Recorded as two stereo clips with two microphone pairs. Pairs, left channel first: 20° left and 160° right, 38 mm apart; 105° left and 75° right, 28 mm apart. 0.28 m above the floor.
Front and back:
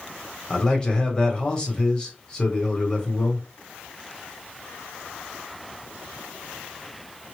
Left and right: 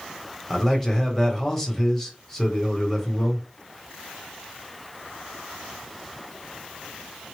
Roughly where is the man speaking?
Ahead left.